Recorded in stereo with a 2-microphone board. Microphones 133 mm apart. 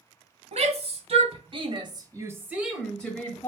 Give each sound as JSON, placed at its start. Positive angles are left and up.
{"t": 0.5, "sound": "a shout", "side_deg": -55, "distance_m": 1.9}